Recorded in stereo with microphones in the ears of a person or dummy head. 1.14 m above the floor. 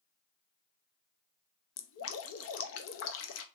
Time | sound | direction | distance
1.8 | dripping | 75° left (ahead or behind) | 0.8 m